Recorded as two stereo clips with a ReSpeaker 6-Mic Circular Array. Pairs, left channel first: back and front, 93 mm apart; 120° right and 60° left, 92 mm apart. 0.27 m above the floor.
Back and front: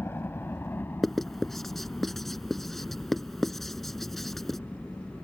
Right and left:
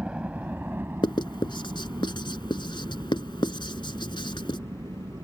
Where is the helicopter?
135° left; by 5.2 s 105° left.